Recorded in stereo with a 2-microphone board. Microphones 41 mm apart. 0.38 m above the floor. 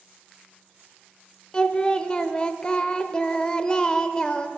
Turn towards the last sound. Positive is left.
turn(degrees=25)  # may be behind; listen again after turning